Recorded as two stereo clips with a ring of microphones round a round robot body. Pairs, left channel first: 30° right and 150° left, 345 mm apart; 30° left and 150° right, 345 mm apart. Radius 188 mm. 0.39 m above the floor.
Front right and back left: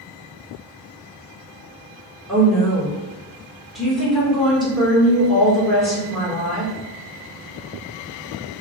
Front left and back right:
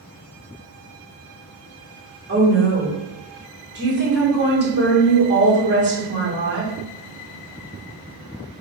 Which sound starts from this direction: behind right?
A woman speaking, at 2.3 s.